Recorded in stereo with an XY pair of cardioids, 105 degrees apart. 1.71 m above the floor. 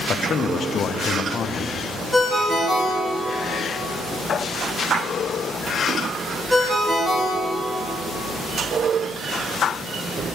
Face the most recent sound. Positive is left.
turn(degrees=-5)